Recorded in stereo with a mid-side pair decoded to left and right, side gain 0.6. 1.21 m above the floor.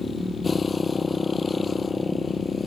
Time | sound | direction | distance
0.0 | a motorcycle | 20° left | ?